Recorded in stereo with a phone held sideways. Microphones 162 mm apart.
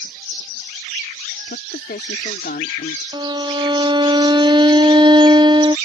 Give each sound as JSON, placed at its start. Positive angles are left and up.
{"t": 1.5, "sound": "a woman speaking", "side_deg": 80}
{"t": 3.1, "sound": "a violin", "side_deg": -30}